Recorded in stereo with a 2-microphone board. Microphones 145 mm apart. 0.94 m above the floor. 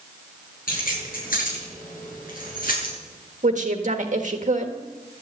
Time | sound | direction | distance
0.7 | keys jangling | 85° left | 10 m
3.4 | a woman speaking | 60° right (ahead or behind) | 1.5 m